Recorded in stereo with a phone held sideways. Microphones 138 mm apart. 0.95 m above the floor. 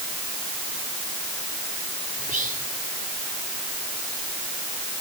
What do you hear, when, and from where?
2.2 s whispering: 75° right (ahead or behind), 3 m